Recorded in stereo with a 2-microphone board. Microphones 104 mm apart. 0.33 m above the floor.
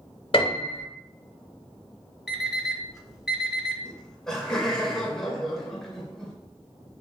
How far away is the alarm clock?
About 0.9 m.